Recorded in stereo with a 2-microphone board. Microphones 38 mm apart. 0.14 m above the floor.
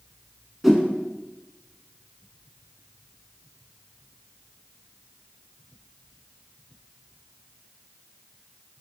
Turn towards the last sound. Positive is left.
turn(degrees=-5)  # may be behind; listen again after turning